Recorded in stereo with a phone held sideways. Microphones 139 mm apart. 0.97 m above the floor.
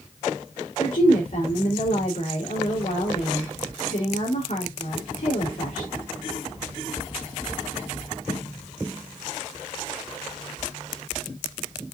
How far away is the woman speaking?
About 3.5 m.